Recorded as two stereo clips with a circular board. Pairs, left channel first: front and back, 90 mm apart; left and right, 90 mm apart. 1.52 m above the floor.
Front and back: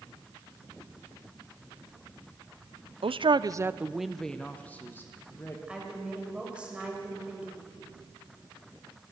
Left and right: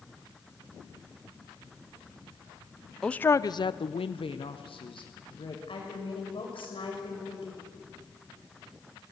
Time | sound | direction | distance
3.0 | a man speaking | 170° left | 0.6 m
5.7 | a woman speaking | 100° left | 5.5 m